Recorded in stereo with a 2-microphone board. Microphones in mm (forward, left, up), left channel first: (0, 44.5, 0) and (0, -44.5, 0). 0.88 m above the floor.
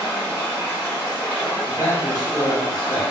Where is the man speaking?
40° left (ahead or behind), 1.4 m.